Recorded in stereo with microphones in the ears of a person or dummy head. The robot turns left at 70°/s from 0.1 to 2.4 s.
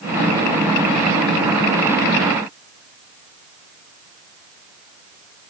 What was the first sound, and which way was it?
Only background noise.